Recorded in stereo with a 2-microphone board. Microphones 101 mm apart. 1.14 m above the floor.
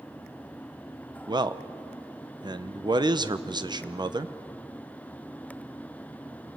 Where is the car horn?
No car horn in this recording.